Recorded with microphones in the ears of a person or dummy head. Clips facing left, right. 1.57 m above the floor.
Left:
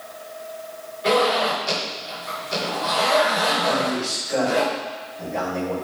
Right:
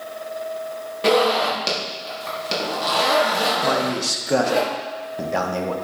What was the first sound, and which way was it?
A zipper, 75° right (ahead or behind).